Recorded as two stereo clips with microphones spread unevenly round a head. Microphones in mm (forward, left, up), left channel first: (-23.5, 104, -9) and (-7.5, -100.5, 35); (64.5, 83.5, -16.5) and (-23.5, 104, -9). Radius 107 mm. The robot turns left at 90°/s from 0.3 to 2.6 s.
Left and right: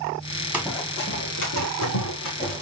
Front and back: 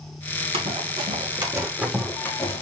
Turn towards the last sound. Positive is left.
turn(degrees=30)